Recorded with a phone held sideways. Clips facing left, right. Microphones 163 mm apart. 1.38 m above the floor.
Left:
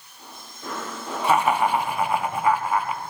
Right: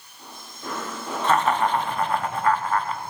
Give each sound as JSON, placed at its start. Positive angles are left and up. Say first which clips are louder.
{"t": 1.2, "sound": "laughter", "louder": "left 1 dB", "side_deg": 10, "distance_m": 0.8}